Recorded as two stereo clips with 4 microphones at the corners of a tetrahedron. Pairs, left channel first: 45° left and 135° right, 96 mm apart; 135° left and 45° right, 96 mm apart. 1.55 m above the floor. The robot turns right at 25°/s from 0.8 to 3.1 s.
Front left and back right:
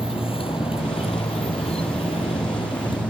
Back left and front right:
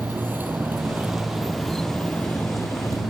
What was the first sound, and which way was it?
A motorcycle, 25° left.